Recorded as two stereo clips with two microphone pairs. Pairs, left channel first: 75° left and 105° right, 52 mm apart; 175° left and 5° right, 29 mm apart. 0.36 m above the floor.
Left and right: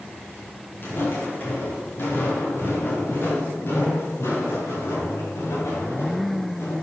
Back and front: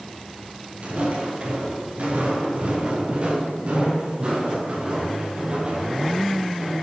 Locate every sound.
0.8 s footsteps: 25° left, 7 m; by 6.7 s 45° left, 9.5 m